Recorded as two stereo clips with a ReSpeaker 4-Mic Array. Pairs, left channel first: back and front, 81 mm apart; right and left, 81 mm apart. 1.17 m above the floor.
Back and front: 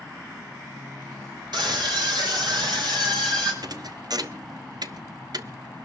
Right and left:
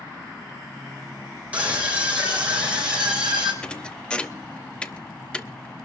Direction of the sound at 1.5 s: 15° left.